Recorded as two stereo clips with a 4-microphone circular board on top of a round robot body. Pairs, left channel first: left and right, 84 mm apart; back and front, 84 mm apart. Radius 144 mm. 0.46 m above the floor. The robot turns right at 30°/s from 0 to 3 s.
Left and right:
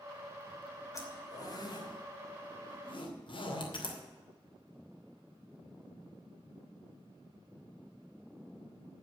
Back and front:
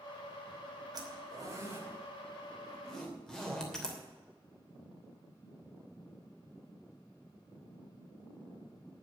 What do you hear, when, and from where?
0.9 s a zipper: 35° left, 3 m; by 4.0 s 100° left, 3 m